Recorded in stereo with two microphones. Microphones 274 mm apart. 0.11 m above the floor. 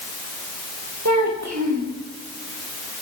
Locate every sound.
1.1 s a child speaking: 80° right, 8.5 m